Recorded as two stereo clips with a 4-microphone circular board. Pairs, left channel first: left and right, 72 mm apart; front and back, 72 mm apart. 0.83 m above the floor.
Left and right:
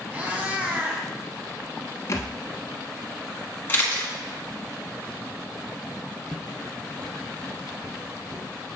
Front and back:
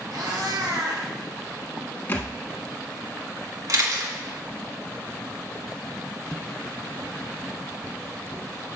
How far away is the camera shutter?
About 1.7 m.